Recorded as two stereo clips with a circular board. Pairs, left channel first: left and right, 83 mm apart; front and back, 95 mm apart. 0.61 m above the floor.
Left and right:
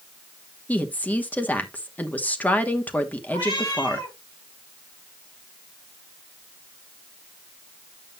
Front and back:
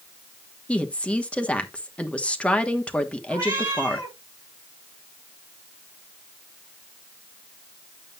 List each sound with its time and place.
0.7 s a woman speaking: 60° left, 1.1 m
3.3 s a cat meowing: 115° left, 8 m